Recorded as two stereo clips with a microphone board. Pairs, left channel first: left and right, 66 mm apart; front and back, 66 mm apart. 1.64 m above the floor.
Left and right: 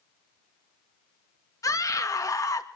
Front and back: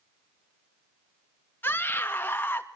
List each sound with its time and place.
1.6 s a scream: 60° left, 2.5 m